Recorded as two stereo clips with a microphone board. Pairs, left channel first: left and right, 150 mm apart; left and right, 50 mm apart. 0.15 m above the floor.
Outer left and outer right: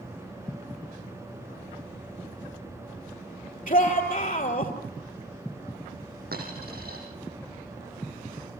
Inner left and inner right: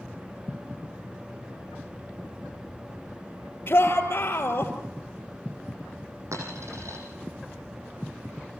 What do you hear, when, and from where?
3.7 s a shout: 60° left (ahead or behind), 3 m
6.3 s a dropped coin: 85° right, 8 m